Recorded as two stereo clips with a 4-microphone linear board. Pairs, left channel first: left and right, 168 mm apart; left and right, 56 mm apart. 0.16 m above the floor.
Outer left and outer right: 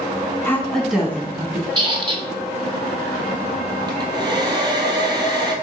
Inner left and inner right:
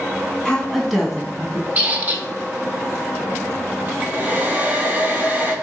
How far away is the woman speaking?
About 1.1 m.